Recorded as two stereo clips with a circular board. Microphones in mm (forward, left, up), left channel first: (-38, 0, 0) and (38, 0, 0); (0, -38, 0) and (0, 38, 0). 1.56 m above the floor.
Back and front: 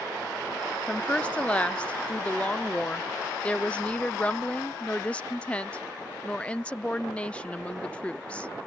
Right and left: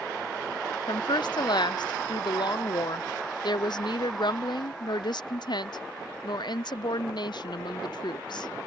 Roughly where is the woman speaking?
Right.